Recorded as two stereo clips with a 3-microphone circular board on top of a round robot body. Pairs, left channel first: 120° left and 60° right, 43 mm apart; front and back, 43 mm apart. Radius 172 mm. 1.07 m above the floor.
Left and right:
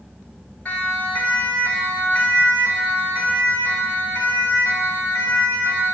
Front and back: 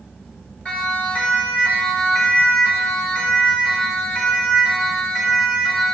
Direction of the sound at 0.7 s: 60° left.